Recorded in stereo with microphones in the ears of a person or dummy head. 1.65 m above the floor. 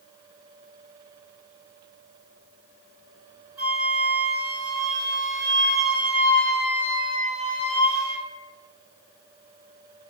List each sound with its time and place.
3.6 s a flute: 10° right (ahead or behind), 1.3 m